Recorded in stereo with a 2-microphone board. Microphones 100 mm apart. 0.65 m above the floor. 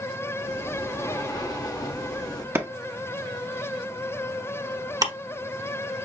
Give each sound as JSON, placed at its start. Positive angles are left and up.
{"t": 0.4, "sound": "breathing", "side_deg": 35, "distance_m": 0.8}
{"t": 2.5, "sound": "a clap", "side_deg": -25, "distance_m": 0.8}
{"t": 5.0, "sound": "ticking", "side_deg": -40, "distance_m": 1.2}